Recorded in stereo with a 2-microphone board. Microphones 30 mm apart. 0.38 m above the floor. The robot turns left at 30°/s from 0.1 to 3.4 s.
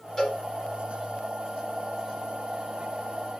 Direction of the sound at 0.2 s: 20° left (ahead or behind).